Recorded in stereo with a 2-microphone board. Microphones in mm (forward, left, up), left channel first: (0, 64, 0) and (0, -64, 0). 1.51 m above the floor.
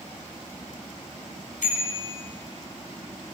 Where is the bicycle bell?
70° left (ahead or behind), 5.5 m.